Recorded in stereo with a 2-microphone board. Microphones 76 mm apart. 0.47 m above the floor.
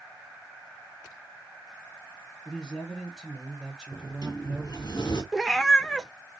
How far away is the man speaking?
About 1.7 m.